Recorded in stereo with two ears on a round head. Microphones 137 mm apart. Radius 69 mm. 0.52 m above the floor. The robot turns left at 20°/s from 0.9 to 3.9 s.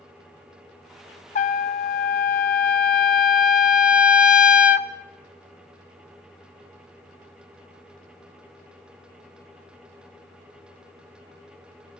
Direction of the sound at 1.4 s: 120° left.